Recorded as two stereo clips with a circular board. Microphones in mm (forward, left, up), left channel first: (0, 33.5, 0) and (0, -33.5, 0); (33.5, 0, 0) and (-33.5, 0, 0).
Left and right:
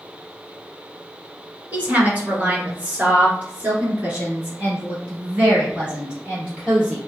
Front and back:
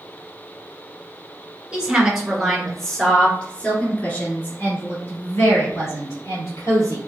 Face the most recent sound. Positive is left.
turn(degrees=-15)